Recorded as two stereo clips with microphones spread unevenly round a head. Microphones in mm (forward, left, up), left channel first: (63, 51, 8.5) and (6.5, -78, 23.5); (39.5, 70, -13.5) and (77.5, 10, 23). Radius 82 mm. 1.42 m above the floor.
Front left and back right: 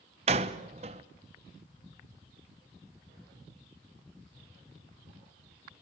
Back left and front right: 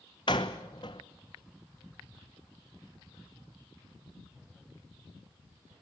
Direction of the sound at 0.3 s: 170° right.